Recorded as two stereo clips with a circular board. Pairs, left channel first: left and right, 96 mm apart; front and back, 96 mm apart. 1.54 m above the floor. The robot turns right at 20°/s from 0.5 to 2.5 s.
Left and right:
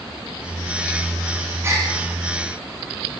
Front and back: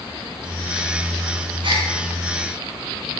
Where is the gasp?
155° right, 3.5 m; by 1.9 s 150° right, 3.5 m.